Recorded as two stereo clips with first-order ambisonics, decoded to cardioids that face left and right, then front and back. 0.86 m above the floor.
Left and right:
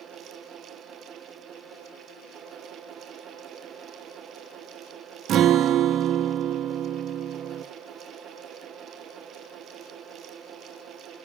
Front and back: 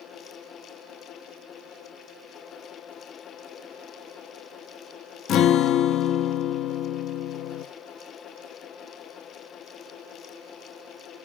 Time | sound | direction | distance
5.3 | a guitar | 45° right | 0.7 m